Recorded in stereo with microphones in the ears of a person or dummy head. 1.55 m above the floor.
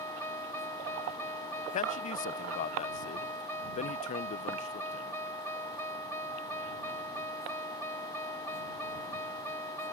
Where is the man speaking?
40° left (ahead or behind).